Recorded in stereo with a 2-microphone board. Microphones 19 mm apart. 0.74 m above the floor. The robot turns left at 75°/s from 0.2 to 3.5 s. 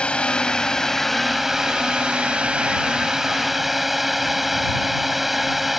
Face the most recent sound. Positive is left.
turn(degrees=-170)